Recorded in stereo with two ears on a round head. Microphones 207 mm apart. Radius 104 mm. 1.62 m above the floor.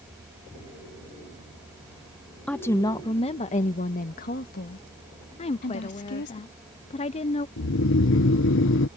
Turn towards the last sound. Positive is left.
turn(degrees=60)  # may be behind; listen again after turning